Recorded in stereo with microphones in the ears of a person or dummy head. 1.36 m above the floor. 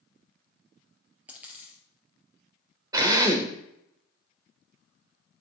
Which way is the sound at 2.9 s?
25° right (ahead or behind).